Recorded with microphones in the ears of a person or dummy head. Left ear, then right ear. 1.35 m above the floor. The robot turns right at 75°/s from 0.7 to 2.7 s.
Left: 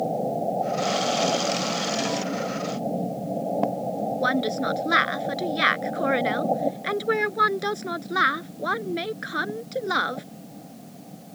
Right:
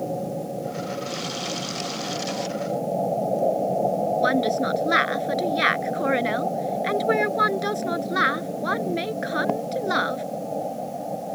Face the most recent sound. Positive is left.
turn(degrees=0)  # may be behind; listen again after turning